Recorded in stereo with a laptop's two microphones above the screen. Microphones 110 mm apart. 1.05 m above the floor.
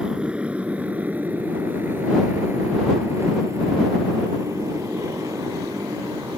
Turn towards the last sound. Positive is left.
turn(degrees=-30)  # may be behind; listen again after turning